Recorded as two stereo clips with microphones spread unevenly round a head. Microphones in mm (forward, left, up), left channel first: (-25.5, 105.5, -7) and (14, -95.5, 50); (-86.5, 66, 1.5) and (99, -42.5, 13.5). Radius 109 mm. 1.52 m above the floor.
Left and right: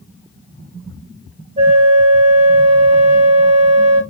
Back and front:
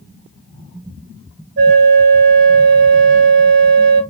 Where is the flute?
45° right, 1.9 m.